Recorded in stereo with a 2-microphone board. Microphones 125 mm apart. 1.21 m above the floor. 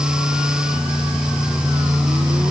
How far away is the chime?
No chime in this recording.